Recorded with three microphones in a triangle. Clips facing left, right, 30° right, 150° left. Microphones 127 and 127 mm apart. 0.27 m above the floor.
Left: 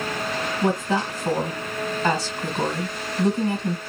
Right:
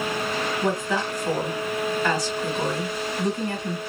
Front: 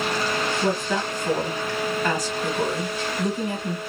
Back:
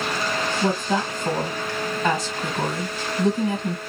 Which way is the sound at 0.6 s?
120° left.